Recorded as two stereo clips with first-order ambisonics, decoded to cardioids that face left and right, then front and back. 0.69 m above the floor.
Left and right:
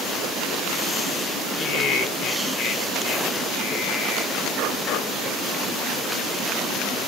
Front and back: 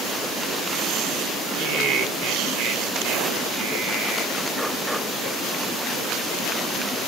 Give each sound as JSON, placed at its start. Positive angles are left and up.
{"t": 1.6, "sound": "laughter", "azimuth_deg": 140, "distance_m": 4.0}